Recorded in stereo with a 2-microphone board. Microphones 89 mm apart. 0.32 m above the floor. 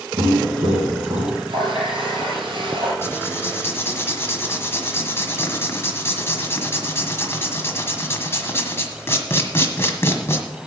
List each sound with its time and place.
0.2 s footsteps: 85° right, 4.5 m; by 1.4 s 75° right (ahead or behind), 3.5 m
1.5 s a running tap: 75° right (ahead or behind), 5.5 m
3.0 s writing: 30° left (ahead or behind), 1.8 m